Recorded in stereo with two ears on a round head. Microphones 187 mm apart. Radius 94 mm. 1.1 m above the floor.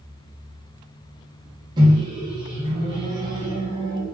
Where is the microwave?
20° right (ahead or behind), 0.7 m.